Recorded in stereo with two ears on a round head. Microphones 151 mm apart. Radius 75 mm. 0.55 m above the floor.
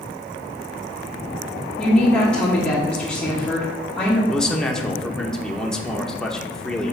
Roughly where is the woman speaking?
Centre.